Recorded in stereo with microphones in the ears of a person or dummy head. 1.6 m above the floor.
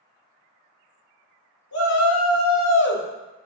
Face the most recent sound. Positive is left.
turn(degrees=20)  # may be behind; listen again after turning